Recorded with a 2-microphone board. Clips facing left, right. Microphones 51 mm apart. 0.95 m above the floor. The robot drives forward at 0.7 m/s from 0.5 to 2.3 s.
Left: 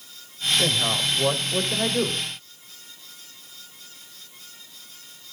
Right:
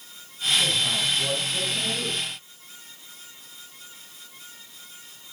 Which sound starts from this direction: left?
A man speaking, at 0.6 s.